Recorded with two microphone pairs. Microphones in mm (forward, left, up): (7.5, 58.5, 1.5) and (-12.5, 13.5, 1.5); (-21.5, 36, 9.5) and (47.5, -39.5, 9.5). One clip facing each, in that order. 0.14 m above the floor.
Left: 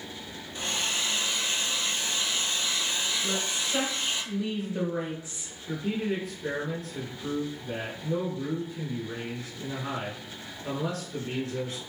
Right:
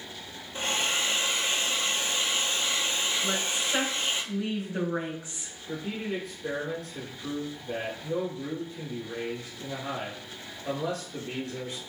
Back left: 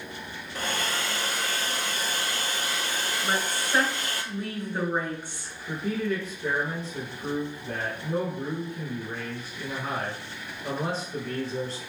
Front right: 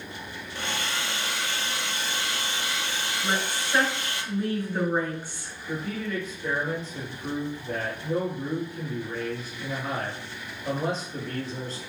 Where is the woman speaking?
155° right, 1.9 m.